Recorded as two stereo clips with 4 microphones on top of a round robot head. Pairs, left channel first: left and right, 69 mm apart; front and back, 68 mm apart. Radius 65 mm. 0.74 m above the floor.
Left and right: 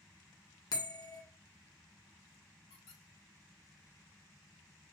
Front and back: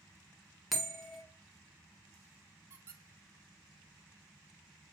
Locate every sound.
0.7 s a bell: 90° left, 1.7 m
2.7 s a squeak: 125° left, 1.0 m